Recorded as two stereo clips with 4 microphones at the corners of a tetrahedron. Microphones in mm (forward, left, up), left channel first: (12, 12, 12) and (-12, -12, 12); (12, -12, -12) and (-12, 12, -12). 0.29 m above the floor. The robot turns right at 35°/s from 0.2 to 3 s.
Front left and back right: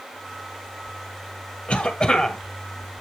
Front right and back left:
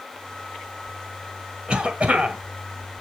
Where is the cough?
90° left, 1.7 m; by 2.4 s 115° left, 1.7 m.